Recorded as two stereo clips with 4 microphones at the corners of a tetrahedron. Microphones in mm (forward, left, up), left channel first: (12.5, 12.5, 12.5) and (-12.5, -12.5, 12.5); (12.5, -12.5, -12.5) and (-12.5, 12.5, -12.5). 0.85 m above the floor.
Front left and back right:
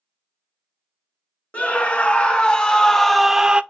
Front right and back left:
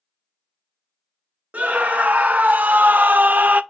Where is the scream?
95° left, 1.5 m; by 3.6 s 160° left, 0.5 m.